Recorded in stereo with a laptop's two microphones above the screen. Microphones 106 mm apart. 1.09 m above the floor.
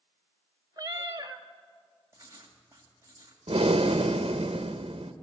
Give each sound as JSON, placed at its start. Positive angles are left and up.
{"t": 0.8, "sound": "a cat meowing", "side_deg": -35, "distance_m": 1.0}
{"t": 2.1, "sound": "writing", "side_deg": -30, "distance_m": 2.5}
{"t": 3.5, "sound": "breathing", "side_deg": -60, "distance_m": 0.8}